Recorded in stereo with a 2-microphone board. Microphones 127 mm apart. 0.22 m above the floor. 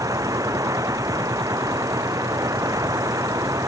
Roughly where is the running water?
Right.